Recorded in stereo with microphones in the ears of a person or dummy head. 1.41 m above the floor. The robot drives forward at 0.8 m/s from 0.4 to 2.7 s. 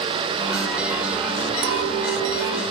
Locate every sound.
1.6 s a clink: 60° right (ahead or behind), 0.6 m; by 2.6 s 30° right (ahead or behind), 1.0 m